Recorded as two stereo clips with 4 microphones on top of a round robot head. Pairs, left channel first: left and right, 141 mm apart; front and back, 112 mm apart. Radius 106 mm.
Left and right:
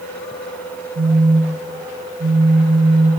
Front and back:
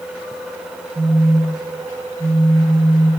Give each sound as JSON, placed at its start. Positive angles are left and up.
{"t": 0.9, "sound": "a phone buzzing", "azimuth_deg": -110, "distance_m": 2.5}